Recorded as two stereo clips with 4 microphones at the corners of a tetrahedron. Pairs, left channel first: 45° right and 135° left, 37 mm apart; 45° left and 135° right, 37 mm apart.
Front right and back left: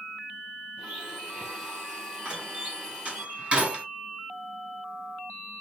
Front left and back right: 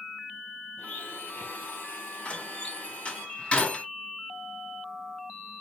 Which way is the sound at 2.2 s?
90° left.